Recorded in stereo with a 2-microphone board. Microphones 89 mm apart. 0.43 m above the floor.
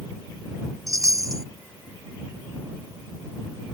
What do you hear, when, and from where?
0.9 s a chime: 35° right (ahead or behind)